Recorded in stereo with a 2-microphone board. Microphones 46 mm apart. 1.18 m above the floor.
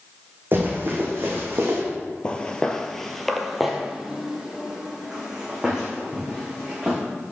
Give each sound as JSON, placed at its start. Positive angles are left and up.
{"t": 0.5, "sound": "running footsteps", "side_deg": -45, "distance_m": 3.0}
{"t": 2.2, "sound": "footsteps", "side_deg": 20, "distance_m": 1.3}